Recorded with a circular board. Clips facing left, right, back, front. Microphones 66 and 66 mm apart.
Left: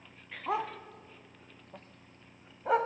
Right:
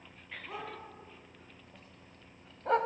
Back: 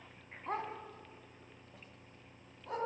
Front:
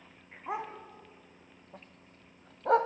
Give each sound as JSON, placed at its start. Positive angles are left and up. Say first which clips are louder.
{"t": 0.5, "sound": "a dog barking", "louder": "left 10 dB, front 2 dB", "azimuth_deg": 80, "distance_m": 1.5}